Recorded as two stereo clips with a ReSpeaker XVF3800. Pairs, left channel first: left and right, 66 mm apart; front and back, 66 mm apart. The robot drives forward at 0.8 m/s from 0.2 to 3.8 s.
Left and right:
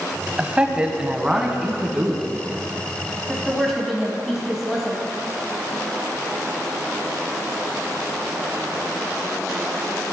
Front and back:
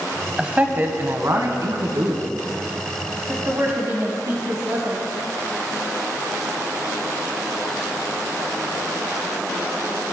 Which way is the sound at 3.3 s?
Straight behind.